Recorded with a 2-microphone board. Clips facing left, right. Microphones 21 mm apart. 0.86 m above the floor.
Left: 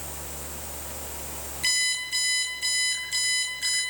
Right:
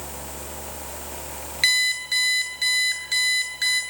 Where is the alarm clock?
45° right (ahead or behind), 9.5 m.